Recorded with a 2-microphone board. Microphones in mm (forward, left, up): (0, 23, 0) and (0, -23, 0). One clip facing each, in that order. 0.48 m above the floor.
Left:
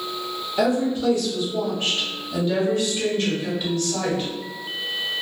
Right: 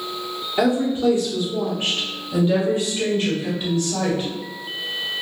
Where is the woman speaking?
20° right (ahead or behind), 1.2 m; by 4.3 s 15° right (ahead or behind), 2.5 m.